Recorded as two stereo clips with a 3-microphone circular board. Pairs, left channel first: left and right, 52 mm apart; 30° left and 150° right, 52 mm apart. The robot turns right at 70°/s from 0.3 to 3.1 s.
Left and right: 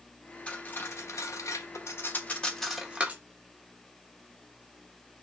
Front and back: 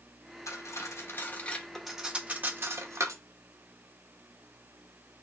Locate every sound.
0.5 s cutlery clinking: 25° left, 0.7 m; by 3.2 s 150° right, 0.7 m